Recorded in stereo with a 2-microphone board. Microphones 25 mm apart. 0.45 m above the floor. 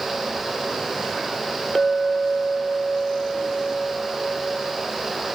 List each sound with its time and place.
1.8 s a clink: 10° left (ahead or behind), 0.6 m